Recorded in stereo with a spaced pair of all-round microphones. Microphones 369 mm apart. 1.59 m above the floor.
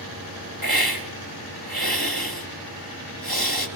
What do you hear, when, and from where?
0.6 s a hiss: 70° right (ahead or behind), 3.5 m